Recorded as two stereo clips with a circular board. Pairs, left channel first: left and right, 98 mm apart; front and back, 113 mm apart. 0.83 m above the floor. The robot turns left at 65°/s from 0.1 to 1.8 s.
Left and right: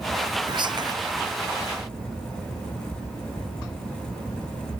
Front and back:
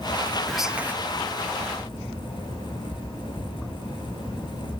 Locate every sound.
0.5 s whispering: 85° right, 0.8 m; by 0.9 s 115° right, 0.8 m